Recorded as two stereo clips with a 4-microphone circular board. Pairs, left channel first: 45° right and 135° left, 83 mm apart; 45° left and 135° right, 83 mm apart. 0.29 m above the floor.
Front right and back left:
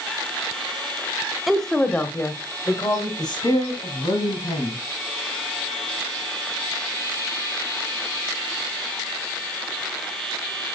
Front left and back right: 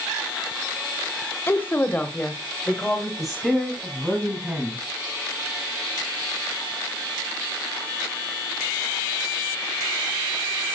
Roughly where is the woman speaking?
Ahead left.